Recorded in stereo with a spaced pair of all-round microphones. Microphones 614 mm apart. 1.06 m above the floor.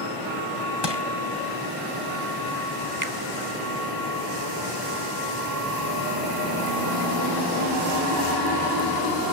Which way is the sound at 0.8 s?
40° left (ahead or behind).